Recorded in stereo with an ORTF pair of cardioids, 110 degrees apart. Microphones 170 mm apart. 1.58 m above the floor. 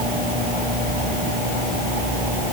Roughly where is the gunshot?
I don't hear a gunshot.